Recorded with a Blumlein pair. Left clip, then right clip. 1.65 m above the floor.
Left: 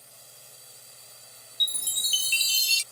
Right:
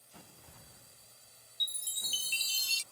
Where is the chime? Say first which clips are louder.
Left 9 dB; 65° left.